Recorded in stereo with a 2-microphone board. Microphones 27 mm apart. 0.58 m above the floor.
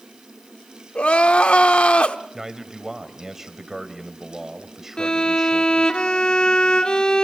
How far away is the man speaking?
About 2.5 m.